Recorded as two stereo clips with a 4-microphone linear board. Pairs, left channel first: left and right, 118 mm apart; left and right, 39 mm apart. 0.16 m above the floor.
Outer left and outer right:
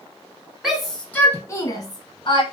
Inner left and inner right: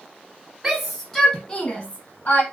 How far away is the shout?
About 1.1 m.